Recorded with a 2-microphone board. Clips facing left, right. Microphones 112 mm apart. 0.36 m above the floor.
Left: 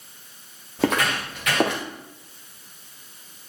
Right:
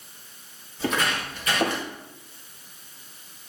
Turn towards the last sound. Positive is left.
turn(degrees=85)